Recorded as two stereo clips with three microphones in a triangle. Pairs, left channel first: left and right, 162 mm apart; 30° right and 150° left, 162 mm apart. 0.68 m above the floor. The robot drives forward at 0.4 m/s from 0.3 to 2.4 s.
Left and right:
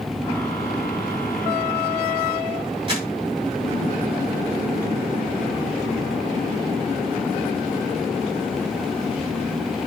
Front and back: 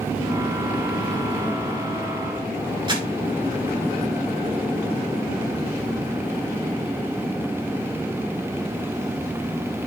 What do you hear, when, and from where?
2.9 s crumpling: 150° right, 4 m